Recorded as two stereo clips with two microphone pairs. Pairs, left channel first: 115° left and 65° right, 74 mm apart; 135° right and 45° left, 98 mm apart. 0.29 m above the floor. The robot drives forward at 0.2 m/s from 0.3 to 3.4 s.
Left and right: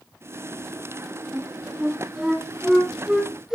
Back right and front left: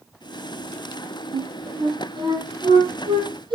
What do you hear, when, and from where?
1.3 s a flute: 20° left, 5.5 m